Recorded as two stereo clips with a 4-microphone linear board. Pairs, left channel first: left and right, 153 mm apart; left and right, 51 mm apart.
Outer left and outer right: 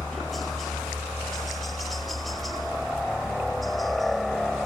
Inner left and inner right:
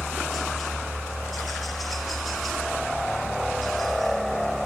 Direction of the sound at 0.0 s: Centre (ahead or behind).